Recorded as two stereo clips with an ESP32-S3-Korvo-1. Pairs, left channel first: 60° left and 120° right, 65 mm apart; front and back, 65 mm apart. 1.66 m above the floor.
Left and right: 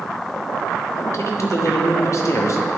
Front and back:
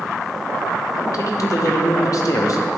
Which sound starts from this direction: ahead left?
A man speaking, at 1.0 s.